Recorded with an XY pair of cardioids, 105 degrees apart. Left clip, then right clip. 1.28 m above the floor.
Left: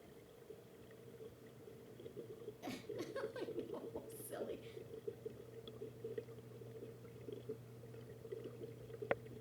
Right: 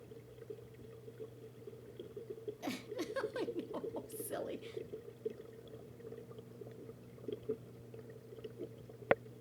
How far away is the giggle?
About 1.3 m.